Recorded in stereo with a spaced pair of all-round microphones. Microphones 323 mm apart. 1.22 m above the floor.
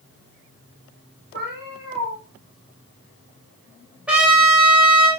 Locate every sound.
1.3 s a cat meowing: 30° right (ahead or behind), 5.5 m
4.1 s a trumpet: 5° right (ahead or behind), 4 m